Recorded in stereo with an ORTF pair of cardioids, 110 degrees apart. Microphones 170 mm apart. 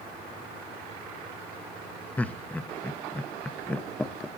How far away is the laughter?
About 1.0 m.